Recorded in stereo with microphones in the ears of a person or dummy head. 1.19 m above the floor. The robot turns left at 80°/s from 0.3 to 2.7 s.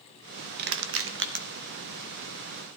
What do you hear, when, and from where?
0.6 s crushing: 55° right (ahead or behind), 1.0 m; by 1.4 s 45° right (ahead or behind), 1.0 m